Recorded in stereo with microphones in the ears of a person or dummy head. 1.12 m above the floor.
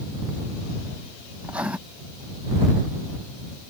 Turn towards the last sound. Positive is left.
turn(degrees=-10)  # may be behind; listen again after turning